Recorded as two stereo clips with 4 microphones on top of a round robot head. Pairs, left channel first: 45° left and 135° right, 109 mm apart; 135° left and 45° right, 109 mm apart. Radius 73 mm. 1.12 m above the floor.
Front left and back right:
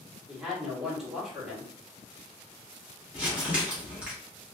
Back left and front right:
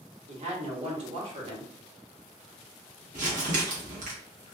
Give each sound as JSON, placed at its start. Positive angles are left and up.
{"t": 0.3, "sound": "a woman speaking", "azimuth_deg": -55, "distance_m": 1.3}
{"t": 3.1, "sound": "crumpling", "azimuth_deg": -60, "distance_m": 1.0}